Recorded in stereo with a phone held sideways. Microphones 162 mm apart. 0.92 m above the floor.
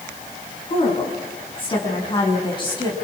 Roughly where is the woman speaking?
Left.